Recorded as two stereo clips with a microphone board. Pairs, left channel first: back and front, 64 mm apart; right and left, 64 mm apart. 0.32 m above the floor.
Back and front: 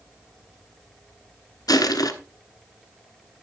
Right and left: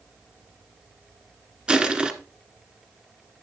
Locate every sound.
1.7 s crushing: 165° left, 1.2 m